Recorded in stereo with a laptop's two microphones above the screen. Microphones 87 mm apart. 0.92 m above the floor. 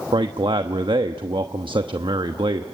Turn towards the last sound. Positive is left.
turn(degrees=-65)  # may be behind; listen again after turning